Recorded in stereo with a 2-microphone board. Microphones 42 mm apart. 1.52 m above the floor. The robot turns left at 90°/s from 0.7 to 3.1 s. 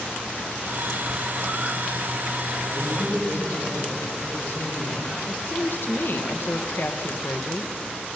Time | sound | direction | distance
2.7 | a man speaking | 145° left | 9 m
5.3 | a woman speaking | 60° left (ahead or behind) | 2.0 m